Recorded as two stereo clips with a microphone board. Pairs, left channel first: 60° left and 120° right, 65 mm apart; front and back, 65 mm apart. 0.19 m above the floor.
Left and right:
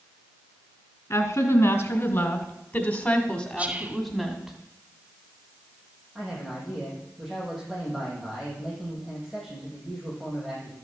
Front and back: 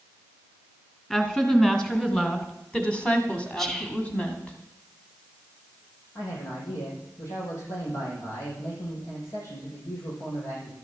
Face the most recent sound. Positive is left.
turn(degrees=-35)